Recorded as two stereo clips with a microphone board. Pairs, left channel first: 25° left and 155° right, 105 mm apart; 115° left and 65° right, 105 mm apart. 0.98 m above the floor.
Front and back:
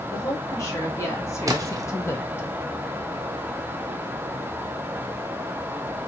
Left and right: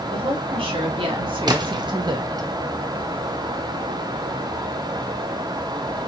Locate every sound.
0.1 s a woman speaking: 40° right, 1.7 m; by 2.5 s 35° right, 0.6 m
1.5 s a splash: 105° right, 0.5 m